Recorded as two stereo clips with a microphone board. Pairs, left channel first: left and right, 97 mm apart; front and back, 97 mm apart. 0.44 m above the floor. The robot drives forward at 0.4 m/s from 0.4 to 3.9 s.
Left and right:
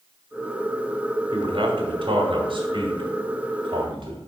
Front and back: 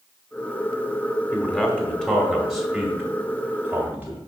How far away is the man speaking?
About 1.8 m.